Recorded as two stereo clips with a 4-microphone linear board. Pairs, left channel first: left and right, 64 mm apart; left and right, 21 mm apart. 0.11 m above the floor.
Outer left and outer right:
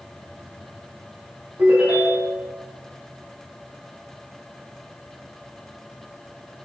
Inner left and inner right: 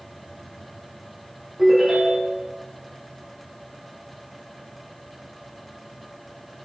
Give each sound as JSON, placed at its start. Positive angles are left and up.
{"t": 1.6, "sound": "a ringtone", "side_deg": -25, "distance_m": 4.0}